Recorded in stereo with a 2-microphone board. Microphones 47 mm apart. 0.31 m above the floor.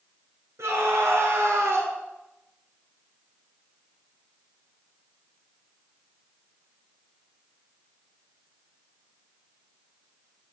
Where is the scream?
70° right (ahead or behind), 4.5 m; by 1.9 s 65° right (ahead or behind), 4.5 m.